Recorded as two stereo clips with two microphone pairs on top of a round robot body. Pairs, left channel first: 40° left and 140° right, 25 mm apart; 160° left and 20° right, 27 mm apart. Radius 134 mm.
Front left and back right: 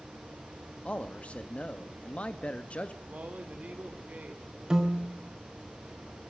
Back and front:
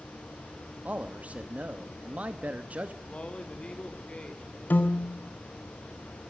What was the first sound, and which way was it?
A man speaking, 15° left.